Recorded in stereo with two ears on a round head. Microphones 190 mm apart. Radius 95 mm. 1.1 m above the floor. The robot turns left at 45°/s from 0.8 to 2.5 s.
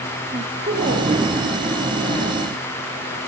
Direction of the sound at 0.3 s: 35° right (ahead or behind).